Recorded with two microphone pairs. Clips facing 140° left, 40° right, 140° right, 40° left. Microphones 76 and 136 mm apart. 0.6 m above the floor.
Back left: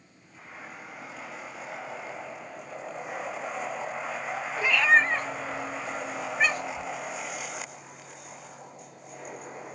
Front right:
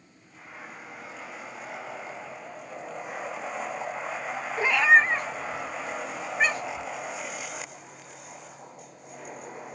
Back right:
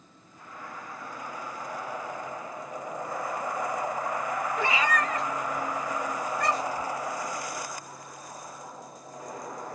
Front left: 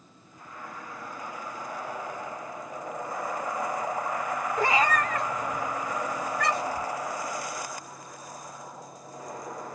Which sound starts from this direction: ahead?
A cat meowing, at 4.6 s.